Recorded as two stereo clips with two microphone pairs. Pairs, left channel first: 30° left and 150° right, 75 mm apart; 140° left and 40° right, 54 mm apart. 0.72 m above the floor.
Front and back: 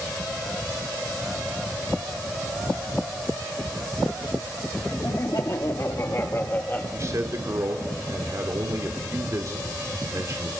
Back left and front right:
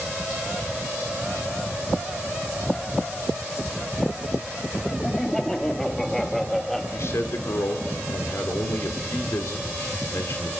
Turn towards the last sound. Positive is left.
turn(degrees=165)